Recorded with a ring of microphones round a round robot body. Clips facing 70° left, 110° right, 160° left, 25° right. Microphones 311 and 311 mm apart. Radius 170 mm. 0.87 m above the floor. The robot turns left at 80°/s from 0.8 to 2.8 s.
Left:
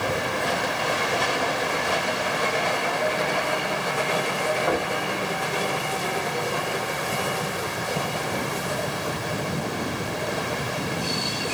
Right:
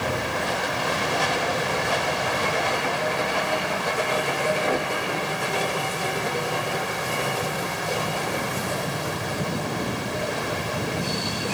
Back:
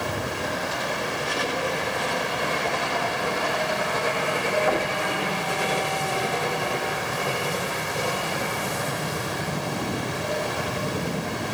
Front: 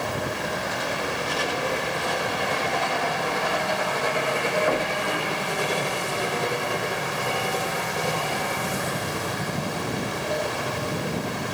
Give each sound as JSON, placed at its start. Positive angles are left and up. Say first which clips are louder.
{"t": 4.7, "sound": "knocking", "louder": "left 1 dB, even", "azimuth_deg": 105, "distance_m": 5.0}